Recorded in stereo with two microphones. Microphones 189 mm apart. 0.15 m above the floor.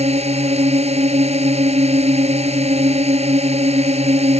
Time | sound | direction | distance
0.0 | a drone | 35° right (ahead or behind) | ?